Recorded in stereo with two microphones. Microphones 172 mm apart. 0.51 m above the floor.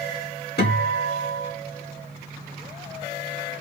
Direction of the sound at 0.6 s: 75° left (ahead or behind).